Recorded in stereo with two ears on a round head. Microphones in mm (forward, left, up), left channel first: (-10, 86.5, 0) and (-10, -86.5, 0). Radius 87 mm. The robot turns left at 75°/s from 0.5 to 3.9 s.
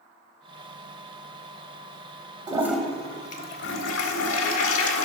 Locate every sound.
2.5 s a toilet flushing: 155° right, 0.9 m; by 5.0 s 95° left, 0.9 m